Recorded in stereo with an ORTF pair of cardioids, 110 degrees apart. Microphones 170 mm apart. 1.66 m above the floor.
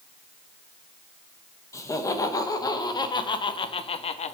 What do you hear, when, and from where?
1.7 s laughter: 20° left, 2.5 m; by 4.3 s 40° left, 1.2 m